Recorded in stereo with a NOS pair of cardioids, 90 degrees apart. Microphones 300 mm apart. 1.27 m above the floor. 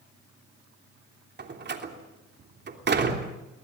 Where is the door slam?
35° right, 3 m.